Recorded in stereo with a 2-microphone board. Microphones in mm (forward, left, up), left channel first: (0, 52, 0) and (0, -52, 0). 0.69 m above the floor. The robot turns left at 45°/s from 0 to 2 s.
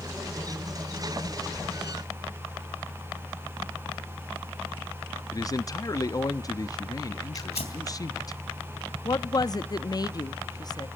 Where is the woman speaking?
40° left (ahead or behind), 0.6 m.